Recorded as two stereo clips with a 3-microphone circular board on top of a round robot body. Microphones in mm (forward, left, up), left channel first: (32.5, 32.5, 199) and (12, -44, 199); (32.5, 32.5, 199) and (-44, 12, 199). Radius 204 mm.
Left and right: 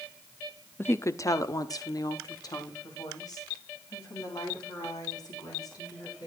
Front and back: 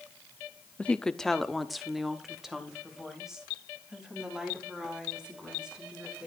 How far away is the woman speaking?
About 0.8 m.